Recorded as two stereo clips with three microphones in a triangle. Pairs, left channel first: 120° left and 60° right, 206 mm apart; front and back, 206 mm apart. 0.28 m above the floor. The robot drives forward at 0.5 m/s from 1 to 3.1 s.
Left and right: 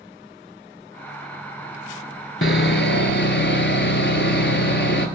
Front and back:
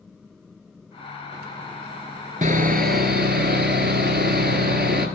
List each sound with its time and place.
2.4 s sawing: 135° left, 0.7 m; by 5.1 s 145° left, 1.0 m